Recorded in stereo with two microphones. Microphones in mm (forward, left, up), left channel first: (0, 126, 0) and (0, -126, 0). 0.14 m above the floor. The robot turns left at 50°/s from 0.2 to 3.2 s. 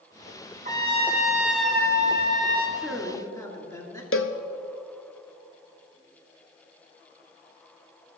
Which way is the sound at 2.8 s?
Centre (ahead or behind).